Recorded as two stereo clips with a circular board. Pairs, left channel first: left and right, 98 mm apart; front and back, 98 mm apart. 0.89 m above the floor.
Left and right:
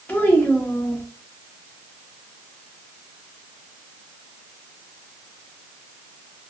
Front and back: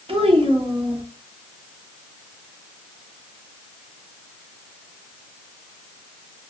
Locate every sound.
0.1 s a child speaking: 165° left, 0.7 m